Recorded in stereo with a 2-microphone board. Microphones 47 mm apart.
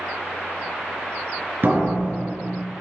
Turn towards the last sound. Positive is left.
turn(degrees=-45)  # may be behind; listen again after turning